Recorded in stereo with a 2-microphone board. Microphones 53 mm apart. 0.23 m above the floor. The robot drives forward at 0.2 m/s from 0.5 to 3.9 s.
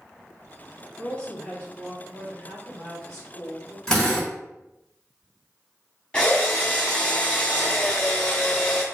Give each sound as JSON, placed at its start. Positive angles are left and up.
{"t": 1.0, "sound": "a woman speaking", "side_deg": 20, "distance_m": 1.6}
{"t": 3.9, "sound": "a drill", "side_deg": 10, "distance_m": 1.8}
{"t": 6.1, "sound": "a drill", "side_deg": 20, "distance_m": 0.8}